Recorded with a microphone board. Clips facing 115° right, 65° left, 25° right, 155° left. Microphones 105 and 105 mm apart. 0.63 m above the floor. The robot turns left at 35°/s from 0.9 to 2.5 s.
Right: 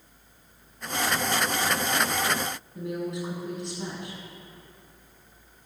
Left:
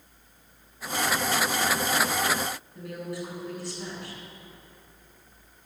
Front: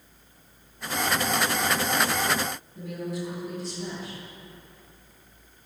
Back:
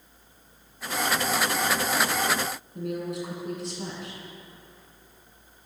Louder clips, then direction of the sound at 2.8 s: Right 4 dB, back 3 dB; straight behind.